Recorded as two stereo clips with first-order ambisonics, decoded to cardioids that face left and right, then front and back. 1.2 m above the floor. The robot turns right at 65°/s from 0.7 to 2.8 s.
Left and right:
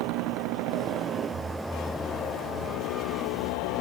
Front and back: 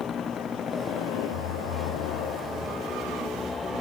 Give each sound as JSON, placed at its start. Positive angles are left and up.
{"t": 0.0, "sound": "a motorcycle", "azimuth_deg": -65}